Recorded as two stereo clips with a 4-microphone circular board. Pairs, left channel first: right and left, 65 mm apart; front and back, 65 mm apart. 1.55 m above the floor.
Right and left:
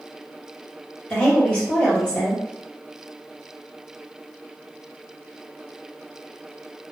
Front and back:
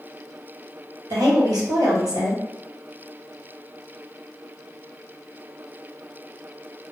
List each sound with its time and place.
1.1 s a woman speaking: 165° right, 1.2 m